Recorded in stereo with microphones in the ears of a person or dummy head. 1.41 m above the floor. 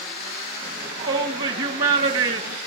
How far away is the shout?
About 2 m.